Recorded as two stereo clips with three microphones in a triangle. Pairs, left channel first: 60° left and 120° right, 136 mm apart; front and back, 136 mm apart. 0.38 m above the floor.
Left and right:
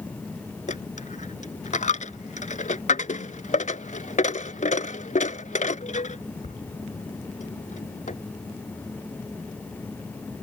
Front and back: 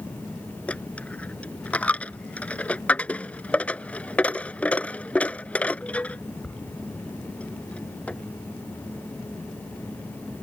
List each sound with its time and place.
0.7 s a dropped coin: 80° left